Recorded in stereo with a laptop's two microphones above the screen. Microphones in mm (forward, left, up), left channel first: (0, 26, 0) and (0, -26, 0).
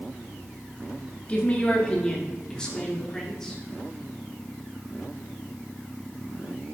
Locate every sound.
1.3 s a woman speaking: 25° left (ahead or behind), 2.5 m; by 3.6 s 10° left (ahead or behind), 3.5 m